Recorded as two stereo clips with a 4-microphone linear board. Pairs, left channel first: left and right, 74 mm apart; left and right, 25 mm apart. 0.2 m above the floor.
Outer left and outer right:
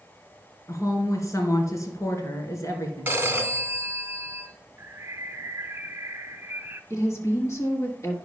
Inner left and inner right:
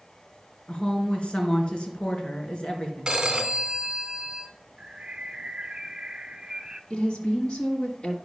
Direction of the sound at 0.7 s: 45° left (ahead or behind).